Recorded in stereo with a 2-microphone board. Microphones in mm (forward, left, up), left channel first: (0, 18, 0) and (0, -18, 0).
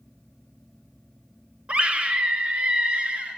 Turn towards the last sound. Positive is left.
turn(degrees=-35)  # may be behind; listen again after turning